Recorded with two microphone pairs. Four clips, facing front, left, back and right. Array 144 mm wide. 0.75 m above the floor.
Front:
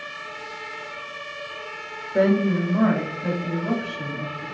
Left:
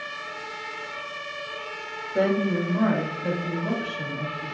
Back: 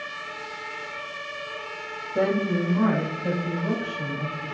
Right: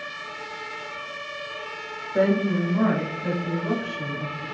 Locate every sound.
2.1 s a woman speaking: 15° right, 1.5 m; by 4.5 s 25° left, 2.5 m